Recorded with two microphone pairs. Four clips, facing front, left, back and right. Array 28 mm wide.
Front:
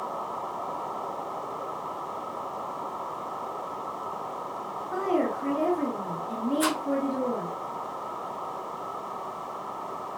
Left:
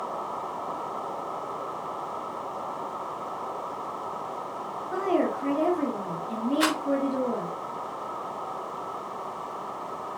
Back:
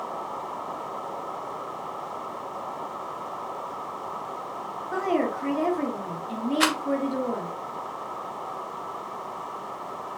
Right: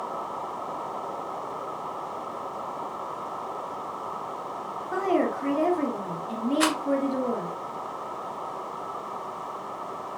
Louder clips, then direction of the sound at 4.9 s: Right 1 dB, back 1 dB; 140° right.